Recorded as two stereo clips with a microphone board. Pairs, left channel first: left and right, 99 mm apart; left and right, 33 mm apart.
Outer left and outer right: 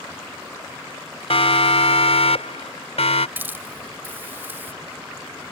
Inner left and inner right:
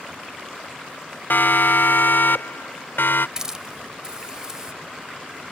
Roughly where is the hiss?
Centre.